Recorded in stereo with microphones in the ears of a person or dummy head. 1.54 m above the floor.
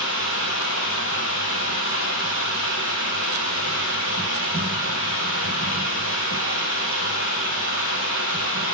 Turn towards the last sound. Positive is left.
turn(degrees=-55)  # may be behind; listen again after turning